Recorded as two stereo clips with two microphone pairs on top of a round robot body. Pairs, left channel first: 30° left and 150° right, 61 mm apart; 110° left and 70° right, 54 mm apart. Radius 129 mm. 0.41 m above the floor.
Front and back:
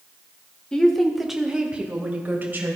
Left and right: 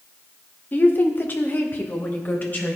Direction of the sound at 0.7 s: 95° left.